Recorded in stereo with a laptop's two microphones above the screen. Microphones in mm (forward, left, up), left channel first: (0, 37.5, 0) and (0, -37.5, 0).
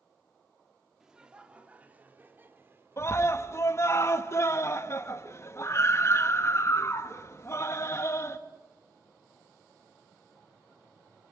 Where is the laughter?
10° right (ahead or behind), 2.5 m; by 3.1 s 35° right (ahead or behind), 3.5 m.